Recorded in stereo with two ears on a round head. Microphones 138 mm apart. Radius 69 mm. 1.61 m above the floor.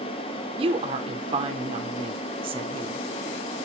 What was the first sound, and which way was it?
A woman speaking, 35° right (ahead or behind).